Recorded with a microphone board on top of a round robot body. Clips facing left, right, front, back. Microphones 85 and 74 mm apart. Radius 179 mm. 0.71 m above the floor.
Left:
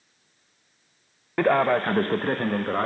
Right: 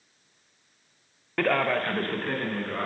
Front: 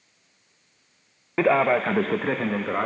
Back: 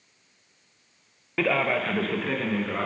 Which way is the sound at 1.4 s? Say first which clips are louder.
Left 4 dB, front 5 dB; 30° left.